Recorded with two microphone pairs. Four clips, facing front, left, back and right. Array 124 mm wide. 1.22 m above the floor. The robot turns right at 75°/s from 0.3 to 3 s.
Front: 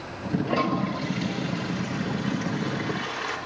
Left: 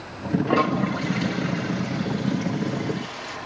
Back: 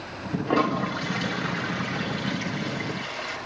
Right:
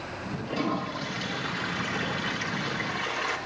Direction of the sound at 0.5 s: 125° left.